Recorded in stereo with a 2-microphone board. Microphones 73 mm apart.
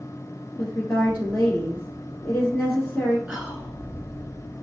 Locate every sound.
0.6 s a woman speaking: 30° left (ahead or behind), 1.4 m
3.3 s whispering: 15° right (ahead or behind), 1.3 m